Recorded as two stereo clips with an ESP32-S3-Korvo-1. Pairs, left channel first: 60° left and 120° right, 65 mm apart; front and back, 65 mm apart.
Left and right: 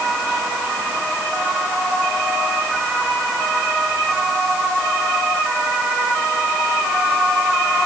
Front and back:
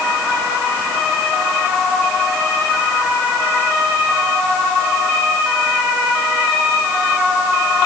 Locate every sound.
Only background noise.